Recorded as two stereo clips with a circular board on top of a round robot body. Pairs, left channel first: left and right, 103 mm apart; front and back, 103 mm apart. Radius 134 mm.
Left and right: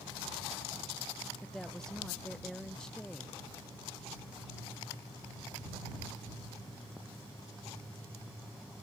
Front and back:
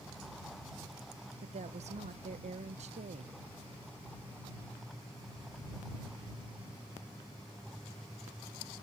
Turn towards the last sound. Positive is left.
turn(degrees=175)